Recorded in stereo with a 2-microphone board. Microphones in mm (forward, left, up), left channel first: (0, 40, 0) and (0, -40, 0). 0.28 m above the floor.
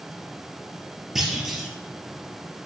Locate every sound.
1.1 s a clunk: 5° right (ahead or behind), 2 m